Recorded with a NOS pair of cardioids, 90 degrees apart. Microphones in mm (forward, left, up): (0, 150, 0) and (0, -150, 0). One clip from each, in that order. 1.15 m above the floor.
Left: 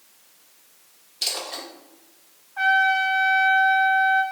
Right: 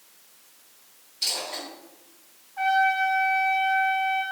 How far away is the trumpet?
About 2 m.